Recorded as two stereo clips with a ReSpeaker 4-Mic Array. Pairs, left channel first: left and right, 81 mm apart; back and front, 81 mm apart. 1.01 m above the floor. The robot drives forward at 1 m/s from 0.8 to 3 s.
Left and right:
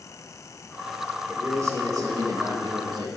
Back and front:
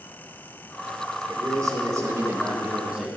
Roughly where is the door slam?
No door slam in this recording.